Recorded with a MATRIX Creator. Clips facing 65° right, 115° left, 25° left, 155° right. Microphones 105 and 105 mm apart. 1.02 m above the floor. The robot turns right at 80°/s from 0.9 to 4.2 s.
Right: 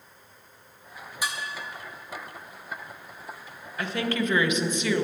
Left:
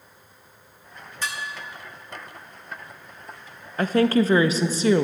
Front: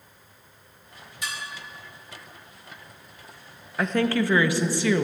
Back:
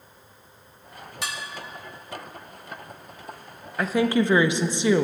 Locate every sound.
1.2 s dishes clattering: 145° right, 1.6 m; by 1.4 s 130° right, 1.6 m
3.8 s a woman speaking: 110° left, 0.7 m; by 5.0 s 145° left, 0.7 m